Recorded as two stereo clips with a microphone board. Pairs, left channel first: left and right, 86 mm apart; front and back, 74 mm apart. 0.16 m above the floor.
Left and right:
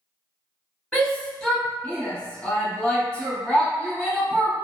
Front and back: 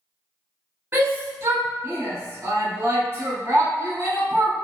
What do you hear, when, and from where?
0.9 s a shout: 160° left, 1.1 m